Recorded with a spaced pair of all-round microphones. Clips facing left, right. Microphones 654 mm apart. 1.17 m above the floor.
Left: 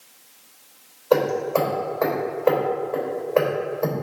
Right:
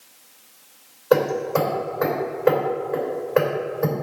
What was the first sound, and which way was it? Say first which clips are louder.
Hammering: right 1 dB; 45° right (ahead or behind).